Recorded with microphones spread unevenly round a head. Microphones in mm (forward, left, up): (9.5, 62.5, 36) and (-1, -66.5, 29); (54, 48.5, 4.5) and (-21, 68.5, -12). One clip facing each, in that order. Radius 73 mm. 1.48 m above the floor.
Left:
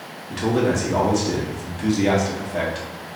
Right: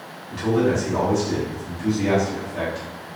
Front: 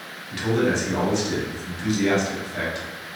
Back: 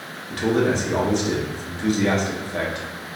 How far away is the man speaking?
About 1.7 m.